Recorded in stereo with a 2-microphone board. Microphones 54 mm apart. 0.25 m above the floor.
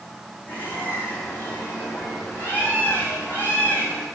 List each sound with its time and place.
0.5 s a bird: 30° left (ahead or behind), 7 m